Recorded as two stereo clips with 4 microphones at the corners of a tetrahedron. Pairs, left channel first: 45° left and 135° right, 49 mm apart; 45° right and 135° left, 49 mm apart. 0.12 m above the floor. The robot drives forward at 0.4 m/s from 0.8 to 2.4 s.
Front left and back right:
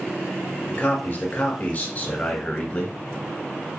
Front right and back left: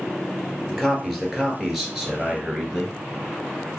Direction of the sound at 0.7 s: 45° left.